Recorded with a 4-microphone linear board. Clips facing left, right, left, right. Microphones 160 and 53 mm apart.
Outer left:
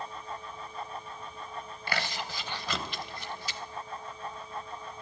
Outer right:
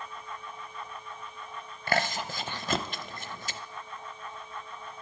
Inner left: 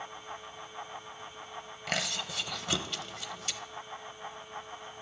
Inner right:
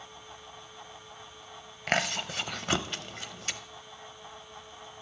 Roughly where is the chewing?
Right.